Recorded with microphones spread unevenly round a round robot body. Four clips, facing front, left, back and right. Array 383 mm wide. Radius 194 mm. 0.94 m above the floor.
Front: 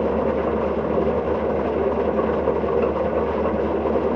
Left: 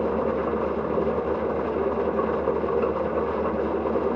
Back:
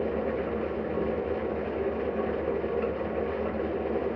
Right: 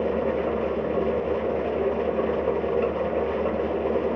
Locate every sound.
0.0 s an engine running: straight ahead, 0.8 m